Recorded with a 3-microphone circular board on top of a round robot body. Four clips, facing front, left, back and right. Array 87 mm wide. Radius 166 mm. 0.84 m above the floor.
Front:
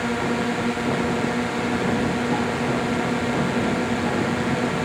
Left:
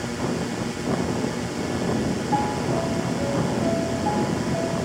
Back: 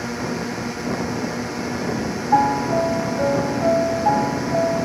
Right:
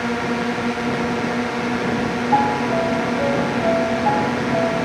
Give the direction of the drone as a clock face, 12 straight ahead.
2 o'clock.